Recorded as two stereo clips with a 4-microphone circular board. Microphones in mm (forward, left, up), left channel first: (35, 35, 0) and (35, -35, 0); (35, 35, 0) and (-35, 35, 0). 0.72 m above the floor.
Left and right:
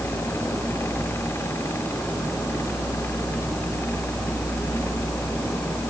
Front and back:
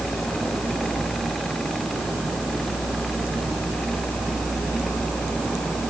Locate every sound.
Only background noise.